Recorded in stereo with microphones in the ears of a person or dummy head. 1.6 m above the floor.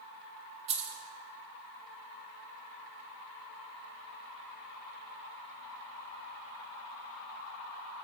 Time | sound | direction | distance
0.7 | keys jangling | 35° right (ahead or behind) | 1.7 m